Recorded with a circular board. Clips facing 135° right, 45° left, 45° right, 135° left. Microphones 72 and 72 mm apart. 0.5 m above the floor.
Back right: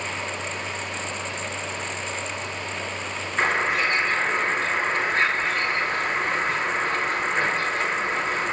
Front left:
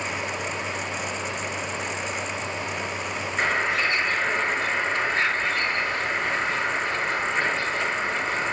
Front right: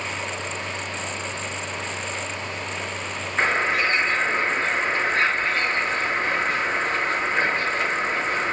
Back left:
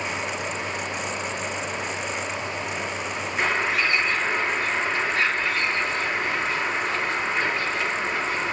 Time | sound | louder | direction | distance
3.4 | a bird | back right 2 dB, front right 2 dB | 95° right | 7.5 m